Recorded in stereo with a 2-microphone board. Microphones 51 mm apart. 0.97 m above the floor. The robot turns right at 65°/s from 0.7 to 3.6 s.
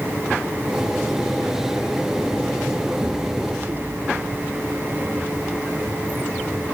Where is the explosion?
140° right, 1.2 m; by 5.0 s 100° right, 1.2 m.